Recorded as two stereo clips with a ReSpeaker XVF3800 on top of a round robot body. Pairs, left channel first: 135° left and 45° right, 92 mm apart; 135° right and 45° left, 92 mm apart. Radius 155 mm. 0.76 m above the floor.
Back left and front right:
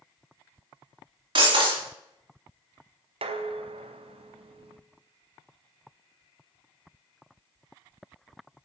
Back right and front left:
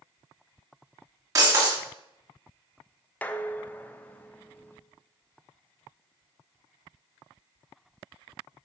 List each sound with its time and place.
1.4 s breaking glass: 10° right, 3.5 m
3.2 s dishes clattering: 60° right, 0.9 m